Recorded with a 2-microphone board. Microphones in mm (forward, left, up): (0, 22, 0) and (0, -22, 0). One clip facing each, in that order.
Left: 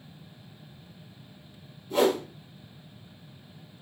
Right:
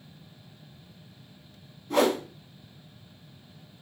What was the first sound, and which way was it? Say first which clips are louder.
A whoosh: even; 60° right (ahead or behind).